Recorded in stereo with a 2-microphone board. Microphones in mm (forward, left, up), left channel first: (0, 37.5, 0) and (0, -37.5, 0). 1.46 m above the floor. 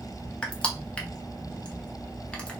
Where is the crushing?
15° left (ahead or behind), 0.7 m.